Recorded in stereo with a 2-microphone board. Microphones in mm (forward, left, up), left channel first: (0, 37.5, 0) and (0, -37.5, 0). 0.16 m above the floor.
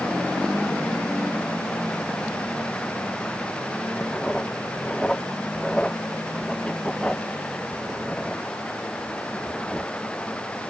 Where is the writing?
10° left (ahead or behind).